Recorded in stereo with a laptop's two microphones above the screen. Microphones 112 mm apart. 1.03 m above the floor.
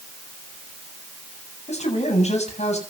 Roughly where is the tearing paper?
I don't hear tearing paper.